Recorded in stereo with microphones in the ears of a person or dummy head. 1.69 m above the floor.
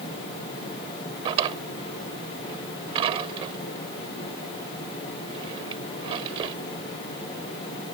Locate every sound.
1.2 s a drawer: 35° right (ahead or behind)